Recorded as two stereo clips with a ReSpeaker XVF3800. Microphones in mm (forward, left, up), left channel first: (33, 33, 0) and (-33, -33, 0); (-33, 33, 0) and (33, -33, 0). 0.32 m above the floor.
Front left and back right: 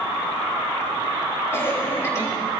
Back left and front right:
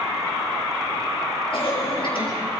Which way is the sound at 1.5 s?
105° left.